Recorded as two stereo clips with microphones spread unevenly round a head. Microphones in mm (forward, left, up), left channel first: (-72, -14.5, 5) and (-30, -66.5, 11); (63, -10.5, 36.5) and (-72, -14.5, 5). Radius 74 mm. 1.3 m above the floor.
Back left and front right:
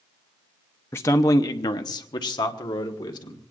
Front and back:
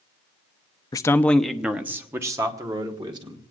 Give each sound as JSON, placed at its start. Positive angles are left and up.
{"t": 0.9, "sound": "a man speaking", "azimuth_deg": 70, "distance_m": 0.6}